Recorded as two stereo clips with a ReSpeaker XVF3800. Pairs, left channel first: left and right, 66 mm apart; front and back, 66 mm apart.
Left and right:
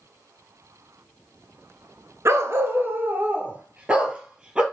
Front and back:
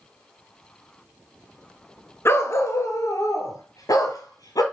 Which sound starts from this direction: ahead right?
A dog barking, at 2.2 s.